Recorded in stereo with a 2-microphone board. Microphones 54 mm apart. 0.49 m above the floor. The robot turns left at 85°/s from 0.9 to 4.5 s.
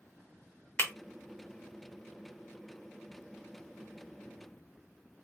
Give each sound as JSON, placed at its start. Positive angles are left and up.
{"t": 0.8, "sound": "breaking glass", "side_deg": 60, "distance_m": 0.8}